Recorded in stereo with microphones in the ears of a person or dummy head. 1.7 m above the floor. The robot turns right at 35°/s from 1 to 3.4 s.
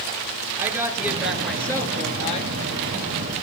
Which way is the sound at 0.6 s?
10° right.